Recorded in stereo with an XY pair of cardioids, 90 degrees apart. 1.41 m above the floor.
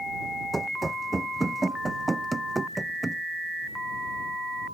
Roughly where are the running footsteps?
Ahead right.